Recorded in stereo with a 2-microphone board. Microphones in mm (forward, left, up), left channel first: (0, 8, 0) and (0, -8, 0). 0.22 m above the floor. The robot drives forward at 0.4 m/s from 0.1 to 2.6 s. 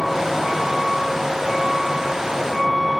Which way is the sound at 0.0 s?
5° right (ahead or behind).